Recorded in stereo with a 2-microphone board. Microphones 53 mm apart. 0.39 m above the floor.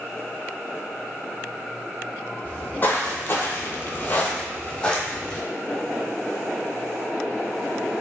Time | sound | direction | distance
2.5 | footsteps | 30° left (ahead or behind) | 0.8 m